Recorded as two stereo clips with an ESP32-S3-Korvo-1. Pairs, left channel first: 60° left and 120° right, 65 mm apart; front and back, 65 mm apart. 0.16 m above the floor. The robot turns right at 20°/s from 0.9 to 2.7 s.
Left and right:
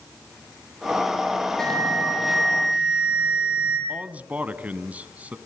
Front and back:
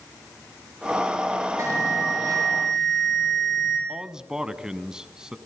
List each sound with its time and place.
1.6 s an alarm: 140° left, 8 m; by 3.8 s 165° left, 8 m
3.9 s a man speaking: 125° right, 1.1 m